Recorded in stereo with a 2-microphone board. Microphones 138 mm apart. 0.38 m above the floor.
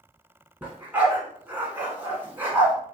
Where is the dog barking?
10° right (ahead or behind), 1.2 m.